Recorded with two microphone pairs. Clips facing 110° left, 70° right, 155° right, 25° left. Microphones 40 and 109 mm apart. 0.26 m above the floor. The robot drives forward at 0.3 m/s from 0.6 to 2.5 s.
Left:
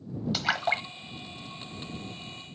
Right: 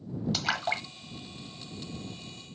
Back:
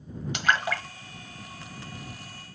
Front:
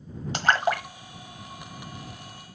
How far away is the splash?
About 1.1 m.